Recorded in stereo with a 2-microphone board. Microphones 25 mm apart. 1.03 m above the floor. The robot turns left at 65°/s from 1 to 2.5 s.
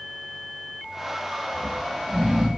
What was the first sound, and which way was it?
Snoring, 25° left (ahead or behind).